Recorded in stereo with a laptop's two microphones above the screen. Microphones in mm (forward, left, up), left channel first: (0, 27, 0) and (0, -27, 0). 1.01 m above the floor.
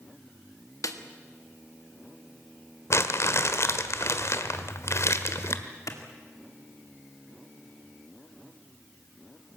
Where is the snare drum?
80° left, 1.5 m.